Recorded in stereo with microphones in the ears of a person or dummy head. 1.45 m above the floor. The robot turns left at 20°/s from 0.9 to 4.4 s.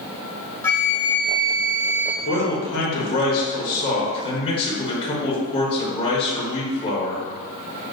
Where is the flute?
10° left (ahead or behind), 0.5 m; by 2.1 s 35° left (ahead or behind), 0.5 m.